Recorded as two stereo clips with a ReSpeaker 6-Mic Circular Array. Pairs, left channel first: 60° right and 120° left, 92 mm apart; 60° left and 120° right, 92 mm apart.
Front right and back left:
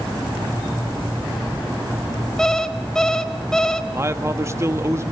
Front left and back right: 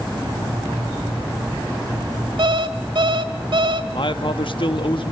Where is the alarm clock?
140° right, 1.5 m.